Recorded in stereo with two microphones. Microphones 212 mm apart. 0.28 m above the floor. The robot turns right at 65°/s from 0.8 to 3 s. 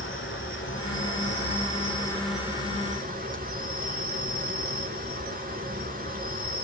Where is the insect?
85° left, 1.3 m; by 6.7 s 135° right, 1.3 m.